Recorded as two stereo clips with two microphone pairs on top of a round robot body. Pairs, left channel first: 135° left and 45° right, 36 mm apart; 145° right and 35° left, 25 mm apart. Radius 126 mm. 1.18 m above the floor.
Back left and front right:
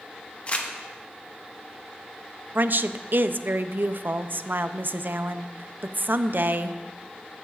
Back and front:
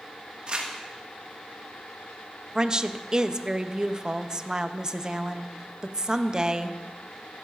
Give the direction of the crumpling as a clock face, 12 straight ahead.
9 o'clock.